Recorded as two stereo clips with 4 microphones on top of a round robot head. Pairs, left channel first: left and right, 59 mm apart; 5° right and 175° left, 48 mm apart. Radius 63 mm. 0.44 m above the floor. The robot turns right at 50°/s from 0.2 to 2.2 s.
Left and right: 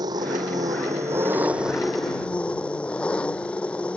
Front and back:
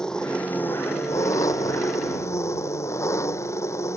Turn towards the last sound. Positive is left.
turn(degrees=15)